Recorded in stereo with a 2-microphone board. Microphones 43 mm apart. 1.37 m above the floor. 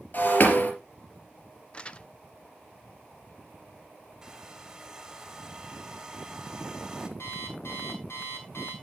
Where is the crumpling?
25° left (ahead or behind), 0.6 m.